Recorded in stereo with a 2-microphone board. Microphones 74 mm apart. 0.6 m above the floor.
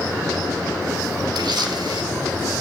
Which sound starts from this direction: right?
A camera shutter, at 1.4 s.